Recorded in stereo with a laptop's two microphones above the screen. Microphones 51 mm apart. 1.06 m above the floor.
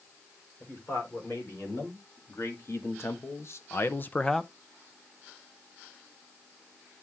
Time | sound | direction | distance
0.6 | a man speaking | 60° left (ahead or behind) | 4.5 m